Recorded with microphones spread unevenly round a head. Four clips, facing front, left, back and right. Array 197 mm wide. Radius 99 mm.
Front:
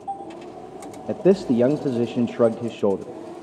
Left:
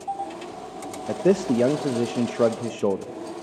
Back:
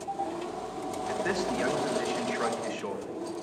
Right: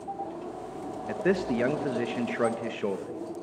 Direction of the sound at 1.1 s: 25° left.